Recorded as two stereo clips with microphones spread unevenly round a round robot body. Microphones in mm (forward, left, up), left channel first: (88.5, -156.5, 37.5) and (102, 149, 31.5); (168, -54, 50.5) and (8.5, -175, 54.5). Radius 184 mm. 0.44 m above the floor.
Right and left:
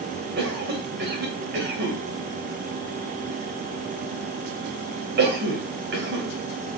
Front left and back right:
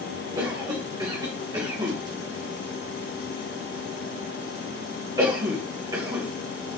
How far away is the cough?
About 2.5 m.